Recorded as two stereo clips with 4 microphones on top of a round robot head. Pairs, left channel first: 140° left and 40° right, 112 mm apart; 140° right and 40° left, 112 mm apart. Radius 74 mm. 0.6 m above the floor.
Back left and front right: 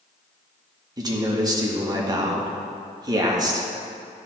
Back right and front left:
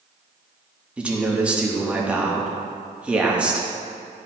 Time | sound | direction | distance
1.0 | a man speaking | 35° right | 1.3 m